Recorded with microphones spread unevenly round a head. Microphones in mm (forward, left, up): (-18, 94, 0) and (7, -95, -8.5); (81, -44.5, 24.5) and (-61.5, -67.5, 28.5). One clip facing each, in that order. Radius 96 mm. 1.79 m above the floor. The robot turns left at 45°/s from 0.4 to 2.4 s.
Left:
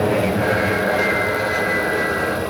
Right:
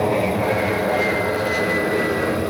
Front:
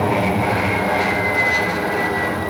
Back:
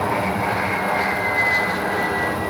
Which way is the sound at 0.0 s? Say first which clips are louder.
Left 1 dB, front 4 dB; 30° left.